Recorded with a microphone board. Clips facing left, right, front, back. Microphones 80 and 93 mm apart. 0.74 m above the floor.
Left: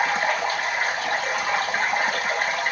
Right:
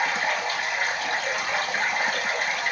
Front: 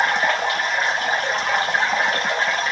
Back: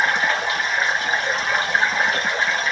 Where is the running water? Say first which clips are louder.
Left 3 dB, front 1 dB; 40° left, 1.5 m.